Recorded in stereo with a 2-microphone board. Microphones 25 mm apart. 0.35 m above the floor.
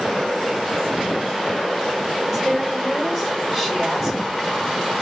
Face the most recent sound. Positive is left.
turn(degrees=-20)  # may be behind; listen again after turning